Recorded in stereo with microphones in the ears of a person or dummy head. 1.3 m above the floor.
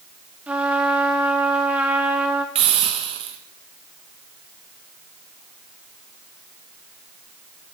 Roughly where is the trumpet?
Centre.